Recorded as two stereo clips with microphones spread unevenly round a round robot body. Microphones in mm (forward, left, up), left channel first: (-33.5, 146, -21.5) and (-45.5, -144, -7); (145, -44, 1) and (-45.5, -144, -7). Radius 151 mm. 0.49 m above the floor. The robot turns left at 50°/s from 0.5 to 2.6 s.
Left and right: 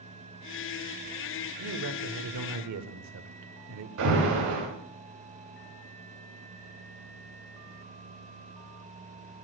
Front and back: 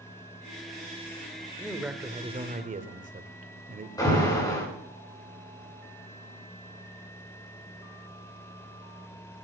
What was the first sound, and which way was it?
A man speaking, 55° right.